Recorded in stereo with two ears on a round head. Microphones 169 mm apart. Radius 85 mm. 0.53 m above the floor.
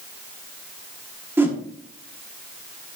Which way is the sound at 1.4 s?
10° right (ahead or behind).